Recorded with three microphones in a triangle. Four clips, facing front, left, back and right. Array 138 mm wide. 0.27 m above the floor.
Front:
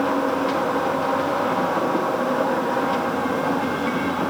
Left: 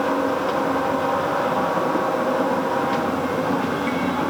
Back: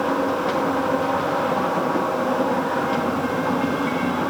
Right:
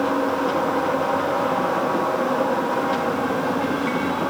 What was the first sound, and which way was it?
Only background noise.